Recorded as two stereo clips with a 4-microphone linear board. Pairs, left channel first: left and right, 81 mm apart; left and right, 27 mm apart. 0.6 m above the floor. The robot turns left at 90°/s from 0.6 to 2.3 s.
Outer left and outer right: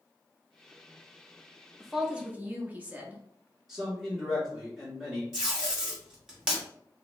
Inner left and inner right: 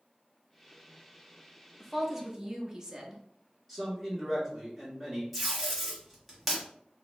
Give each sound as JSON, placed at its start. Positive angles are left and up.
{"t": 1.8, "sound": "a woman speaking", "azimuth_deg": 5, "distance_m": 0.7}
{"t": 3.7, "sound": "a man speaking", "side_deg": 0, "distance_m": 1.7}
{"t": 5.3, "sound": "tape being pulled", "side_deg": -5, "distance_m": 1.6}